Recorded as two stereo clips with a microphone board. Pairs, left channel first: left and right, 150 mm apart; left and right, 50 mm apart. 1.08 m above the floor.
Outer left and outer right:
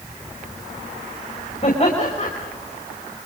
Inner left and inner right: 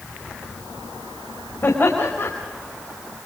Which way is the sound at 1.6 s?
45° left (ahead or behind).